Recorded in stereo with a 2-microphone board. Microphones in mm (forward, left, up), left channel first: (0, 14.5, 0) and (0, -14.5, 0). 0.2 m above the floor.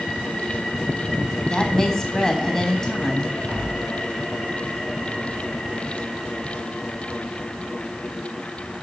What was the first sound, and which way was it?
A woman speaking, 20° left (ahead or behind).